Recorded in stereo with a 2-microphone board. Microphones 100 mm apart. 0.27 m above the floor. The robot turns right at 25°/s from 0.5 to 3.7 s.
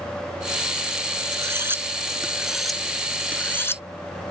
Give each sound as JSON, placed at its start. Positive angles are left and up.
{"t": 1.3, "sound": "cutlery clinking", "side_deg": -30}